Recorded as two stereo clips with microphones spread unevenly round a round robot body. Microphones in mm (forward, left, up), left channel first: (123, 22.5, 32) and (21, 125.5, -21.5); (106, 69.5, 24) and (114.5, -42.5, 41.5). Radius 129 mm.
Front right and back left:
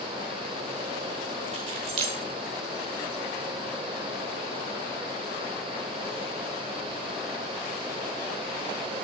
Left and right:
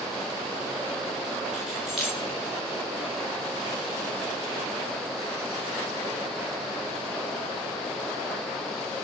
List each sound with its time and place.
1.5 s keys jangling: 175° right, 1.1 m